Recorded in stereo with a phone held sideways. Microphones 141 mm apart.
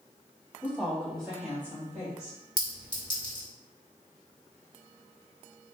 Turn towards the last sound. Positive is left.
turn(degrees=30)  # may be behind; listen again after turning